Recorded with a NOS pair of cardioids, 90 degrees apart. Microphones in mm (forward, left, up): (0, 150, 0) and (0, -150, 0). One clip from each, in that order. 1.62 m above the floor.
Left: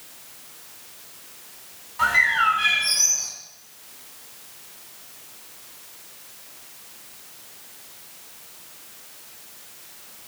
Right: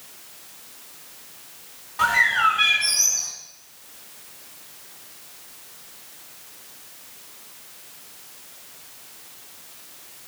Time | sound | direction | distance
2.0 | a bird | 55° right | 4.5 m